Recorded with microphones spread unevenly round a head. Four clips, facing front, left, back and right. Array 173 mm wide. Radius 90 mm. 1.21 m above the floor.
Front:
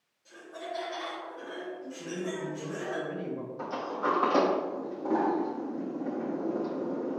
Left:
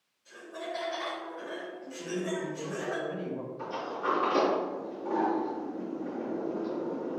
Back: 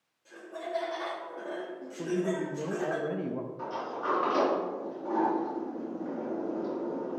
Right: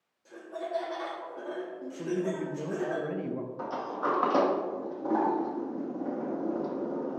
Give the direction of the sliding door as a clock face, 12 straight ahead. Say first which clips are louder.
Right 2 dB, front 2 dB; 2 o'clock.